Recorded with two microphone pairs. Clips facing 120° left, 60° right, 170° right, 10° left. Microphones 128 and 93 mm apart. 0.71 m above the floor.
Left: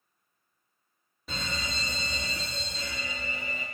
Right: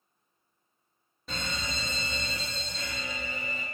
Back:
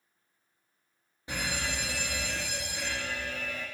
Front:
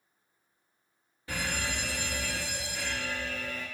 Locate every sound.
1.3 s a fire alarm: 155° right, 1.9 m